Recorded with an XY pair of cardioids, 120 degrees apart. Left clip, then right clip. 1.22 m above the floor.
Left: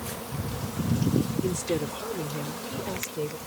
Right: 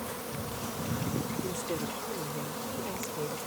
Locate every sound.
1.4 s a woman speaking: 45° left; by 3.4 s 25° left